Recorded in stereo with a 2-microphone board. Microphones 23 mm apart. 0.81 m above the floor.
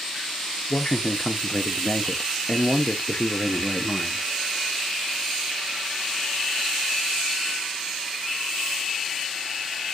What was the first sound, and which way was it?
A man speaking, 30° left (ahead or behind).